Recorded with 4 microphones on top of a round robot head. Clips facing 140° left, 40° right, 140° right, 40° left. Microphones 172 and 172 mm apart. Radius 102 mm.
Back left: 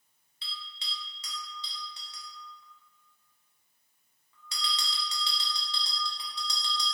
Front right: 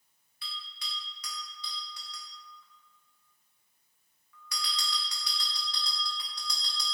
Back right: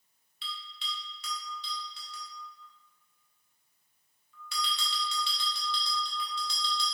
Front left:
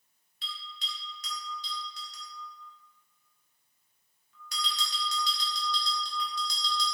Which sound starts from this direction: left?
A bell, at 0.4 s.